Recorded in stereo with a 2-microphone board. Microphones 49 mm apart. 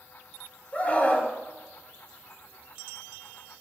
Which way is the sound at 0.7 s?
30° left (ahead or behind).